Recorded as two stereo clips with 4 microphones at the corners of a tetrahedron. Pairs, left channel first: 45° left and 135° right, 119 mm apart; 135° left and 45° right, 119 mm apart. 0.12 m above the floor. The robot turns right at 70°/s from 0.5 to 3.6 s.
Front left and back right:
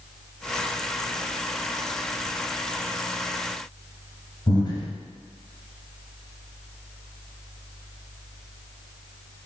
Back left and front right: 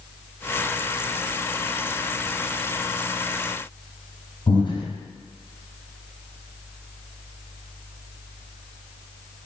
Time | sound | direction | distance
4.5 | breathing | 90° left | 1.9 m